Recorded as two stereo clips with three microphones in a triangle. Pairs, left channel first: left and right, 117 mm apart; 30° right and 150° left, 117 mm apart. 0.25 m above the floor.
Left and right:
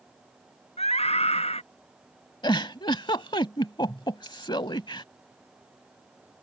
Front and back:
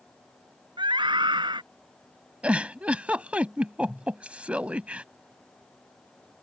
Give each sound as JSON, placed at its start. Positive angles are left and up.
{"t": 0.8, "sound": "a scream", "azimuth_deg": 105}
{"t": 2.4, "sound": "a giggle", "azimuth_deg": 75}